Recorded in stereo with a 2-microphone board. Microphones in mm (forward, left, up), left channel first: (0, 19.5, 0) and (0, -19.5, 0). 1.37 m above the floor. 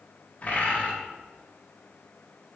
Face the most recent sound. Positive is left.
turn(degrees=45)  # may be behind; listen again after turning